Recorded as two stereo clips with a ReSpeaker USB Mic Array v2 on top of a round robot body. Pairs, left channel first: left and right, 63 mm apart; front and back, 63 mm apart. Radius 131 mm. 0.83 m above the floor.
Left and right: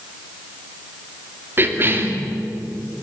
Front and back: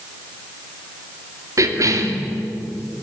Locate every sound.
1.6 s a cough: 145° right, 3 m